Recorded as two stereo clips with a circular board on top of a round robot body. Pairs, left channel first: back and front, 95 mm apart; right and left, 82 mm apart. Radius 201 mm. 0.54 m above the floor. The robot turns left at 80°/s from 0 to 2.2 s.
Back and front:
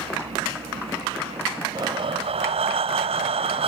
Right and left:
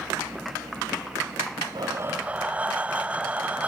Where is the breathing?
50° left; by 3.7 s 15° left.